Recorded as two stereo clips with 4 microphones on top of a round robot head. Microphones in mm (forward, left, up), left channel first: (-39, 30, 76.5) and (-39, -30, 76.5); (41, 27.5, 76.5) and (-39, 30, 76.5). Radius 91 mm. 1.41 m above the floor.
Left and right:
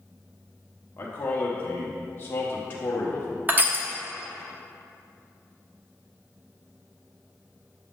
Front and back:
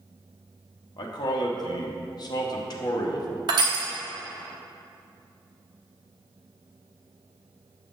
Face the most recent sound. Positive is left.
turn(degrees=-150)